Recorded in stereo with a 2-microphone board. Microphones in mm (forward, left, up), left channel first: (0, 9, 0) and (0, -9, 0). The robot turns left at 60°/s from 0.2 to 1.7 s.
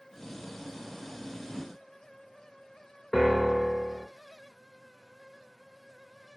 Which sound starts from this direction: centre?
A piano, at 3.1 s.